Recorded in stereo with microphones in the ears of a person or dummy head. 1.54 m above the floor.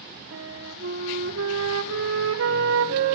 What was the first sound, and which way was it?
A flute, 70° right (ahead or behind).